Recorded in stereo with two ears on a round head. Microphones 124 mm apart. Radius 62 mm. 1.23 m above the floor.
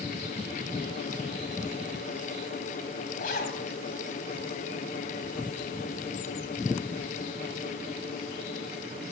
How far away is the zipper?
About 2 m.